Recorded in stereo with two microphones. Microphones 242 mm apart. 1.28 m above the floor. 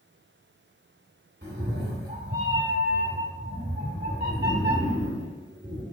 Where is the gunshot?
I don't hear a gunshot.